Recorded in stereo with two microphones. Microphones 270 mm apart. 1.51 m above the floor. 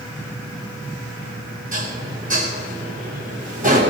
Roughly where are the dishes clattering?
Right.